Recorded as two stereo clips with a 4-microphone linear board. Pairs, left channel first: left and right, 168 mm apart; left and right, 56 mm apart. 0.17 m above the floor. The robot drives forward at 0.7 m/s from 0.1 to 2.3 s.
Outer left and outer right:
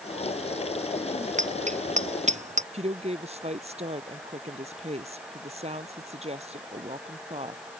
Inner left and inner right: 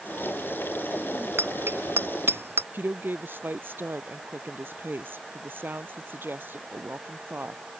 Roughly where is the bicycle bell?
Right.